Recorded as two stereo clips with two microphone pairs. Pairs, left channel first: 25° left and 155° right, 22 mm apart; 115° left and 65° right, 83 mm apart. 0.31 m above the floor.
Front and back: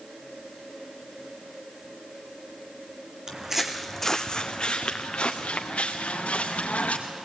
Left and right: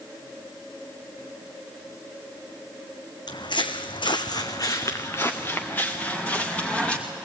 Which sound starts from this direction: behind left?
Footsteps, at 3.3 s.